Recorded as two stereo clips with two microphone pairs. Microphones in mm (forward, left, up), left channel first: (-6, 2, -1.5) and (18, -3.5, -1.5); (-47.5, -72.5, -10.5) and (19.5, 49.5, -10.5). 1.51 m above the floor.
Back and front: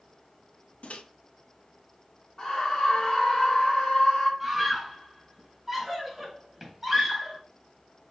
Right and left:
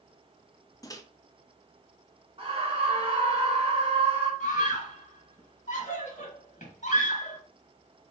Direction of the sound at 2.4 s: 105° left.